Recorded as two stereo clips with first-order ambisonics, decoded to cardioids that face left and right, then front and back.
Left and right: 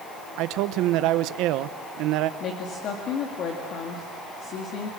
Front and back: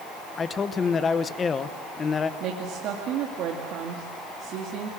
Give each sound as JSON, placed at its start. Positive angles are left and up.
{"t": 0.4, "sound": "a man speaking", "azimuth_deg": -70, "distance_m": 0.9}
{"t": 2.4, "sound": "a woman speaking", "azimuth_deg": 140, "distance_m": 2.0}